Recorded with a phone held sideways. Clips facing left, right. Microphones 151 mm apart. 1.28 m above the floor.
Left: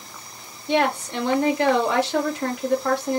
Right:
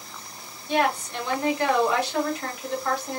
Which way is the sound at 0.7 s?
80° left.